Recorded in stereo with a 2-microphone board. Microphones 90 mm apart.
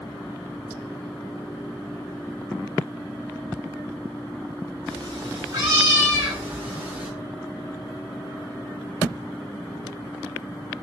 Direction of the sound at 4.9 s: 45° right (ahead or behind).